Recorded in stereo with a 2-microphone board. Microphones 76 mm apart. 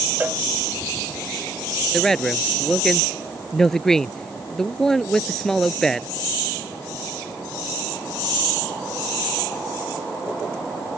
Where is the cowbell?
20° right (ahead or behind).